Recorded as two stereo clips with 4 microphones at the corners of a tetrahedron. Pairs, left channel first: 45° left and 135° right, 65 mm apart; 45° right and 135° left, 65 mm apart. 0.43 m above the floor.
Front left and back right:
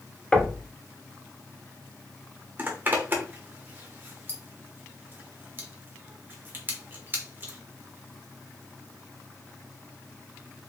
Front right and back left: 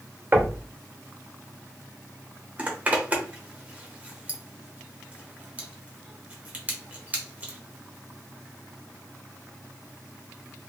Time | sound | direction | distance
0.3 | knocking | 110° left | 0.8 m
2.6 | a zipper | 170° right | 1.1 m